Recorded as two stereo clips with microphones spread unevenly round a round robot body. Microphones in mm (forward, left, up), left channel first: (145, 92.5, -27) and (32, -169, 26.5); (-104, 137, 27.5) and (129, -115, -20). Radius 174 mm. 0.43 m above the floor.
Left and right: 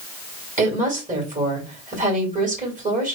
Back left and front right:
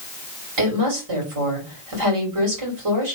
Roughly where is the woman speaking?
Ahead right.